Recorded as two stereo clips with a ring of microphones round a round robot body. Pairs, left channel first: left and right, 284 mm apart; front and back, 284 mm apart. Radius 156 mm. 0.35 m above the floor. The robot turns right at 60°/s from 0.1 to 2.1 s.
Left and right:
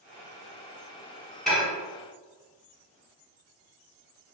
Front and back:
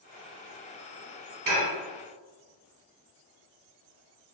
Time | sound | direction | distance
1.5 | dishes clattering | straight behind | 1.0 m